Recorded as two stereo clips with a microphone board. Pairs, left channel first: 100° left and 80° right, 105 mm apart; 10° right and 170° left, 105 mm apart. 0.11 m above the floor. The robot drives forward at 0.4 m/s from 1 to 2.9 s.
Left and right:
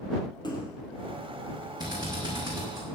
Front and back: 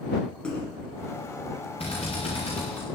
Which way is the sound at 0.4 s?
70° left.